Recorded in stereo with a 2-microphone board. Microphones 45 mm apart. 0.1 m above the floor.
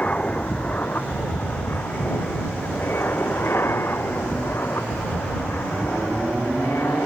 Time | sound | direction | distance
0.0 | an aircraft | 30° left (ahead or behind) | ?